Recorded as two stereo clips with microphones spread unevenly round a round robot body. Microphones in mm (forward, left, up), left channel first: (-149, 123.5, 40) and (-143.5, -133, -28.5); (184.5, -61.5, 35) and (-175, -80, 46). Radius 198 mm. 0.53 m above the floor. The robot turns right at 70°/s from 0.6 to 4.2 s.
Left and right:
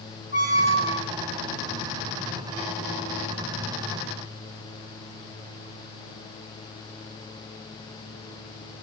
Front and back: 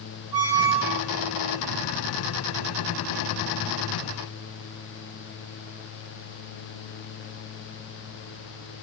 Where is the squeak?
150° right, 4 m; by 1.1 s 115° right, 4 m.